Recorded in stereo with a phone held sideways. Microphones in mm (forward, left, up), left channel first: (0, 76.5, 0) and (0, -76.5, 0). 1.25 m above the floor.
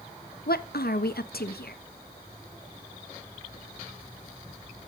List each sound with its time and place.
0.5 s a woman speaking: 90° left, 1.1 m